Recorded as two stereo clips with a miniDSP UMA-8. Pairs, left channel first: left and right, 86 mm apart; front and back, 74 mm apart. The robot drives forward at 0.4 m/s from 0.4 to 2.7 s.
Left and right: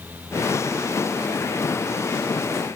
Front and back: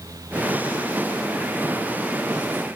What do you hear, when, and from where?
Only background noise.